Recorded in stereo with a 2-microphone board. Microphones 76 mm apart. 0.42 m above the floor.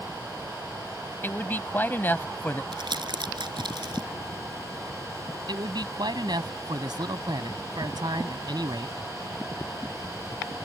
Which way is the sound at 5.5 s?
65° right (ahead or behind).